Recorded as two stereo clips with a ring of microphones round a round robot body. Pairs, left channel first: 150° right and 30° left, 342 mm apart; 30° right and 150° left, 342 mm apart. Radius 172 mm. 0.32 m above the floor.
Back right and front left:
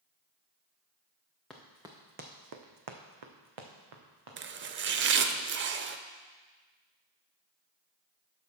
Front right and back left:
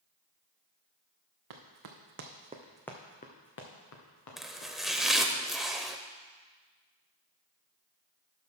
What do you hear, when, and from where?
1.5 s running footsteps: 120° left, 2.0 m; by 5.4 s straight ahead, 4 m
4.4 s chopping: 60° left, 0.6 m